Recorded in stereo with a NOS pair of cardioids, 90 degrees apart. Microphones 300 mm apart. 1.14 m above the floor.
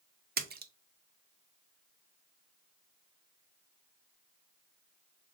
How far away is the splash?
About 0.7 m.